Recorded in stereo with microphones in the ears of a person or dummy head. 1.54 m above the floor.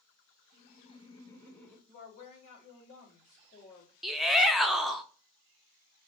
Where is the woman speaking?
30° left (ahead or behind), 2.5 m.